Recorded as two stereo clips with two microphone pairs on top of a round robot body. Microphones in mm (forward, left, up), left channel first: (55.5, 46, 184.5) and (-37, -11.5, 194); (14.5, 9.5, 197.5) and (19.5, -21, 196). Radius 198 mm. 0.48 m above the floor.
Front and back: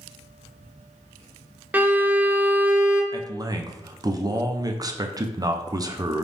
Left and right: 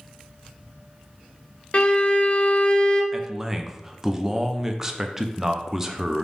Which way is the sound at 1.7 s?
135° left.